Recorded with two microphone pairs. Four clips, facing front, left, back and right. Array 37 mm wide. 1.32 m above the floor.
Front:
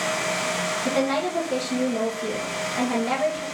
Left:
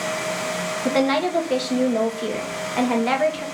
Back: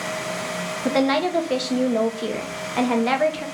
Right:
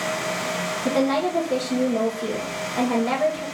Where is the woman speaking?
140° left, 0.8 m.